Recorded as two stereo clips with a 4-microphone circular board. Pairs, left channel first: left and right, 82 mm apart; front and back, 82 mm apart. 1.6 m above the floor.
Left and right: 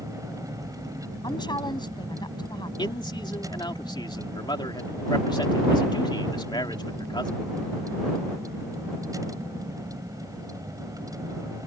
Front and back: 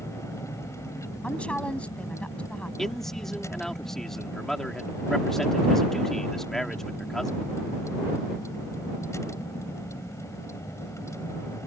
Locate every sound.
0.0 s a vehicle: 50° right
1.2 s a woman speaking: 75° left
2.8 s a man speaking: 85° left